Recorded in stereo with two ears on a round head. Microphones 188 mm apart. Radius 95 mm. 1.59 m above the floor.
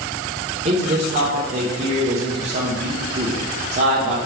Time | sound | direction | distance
0.7 | a man speaking | 35° right (ahead or behind) | 0.7 m